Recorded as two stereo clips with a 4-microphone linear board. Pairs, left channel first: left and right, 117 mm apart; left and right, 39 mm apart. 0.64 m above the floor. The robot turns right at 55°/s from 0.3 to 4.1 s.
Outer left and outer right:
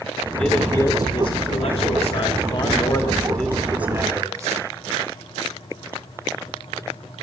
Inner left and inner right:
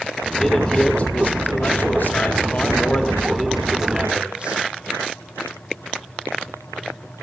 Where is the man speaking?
5° left, 2.0 m; by 4.6 s 150° right, 2.0 m.